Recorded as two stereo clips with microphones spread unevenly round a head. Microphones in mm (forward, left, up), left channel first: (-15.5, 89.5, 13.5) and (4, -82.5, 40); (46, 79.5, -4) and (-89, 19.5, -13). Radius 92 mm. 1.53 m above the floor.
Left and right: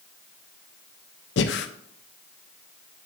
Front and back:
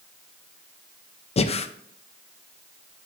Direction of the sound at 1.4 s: 65° left.